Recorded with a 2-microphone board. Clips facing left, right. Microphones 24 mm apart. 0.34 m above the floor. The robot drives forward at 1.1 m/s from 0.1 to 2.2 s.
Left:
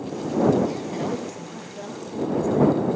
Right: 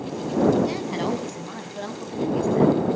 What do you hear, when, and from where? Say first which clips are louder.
0.6 s a woman speaking: right 1 dB; 50° right (ahead or behind), 2.5 m; by 3.0 s 65° right (ahead or behind), 2 m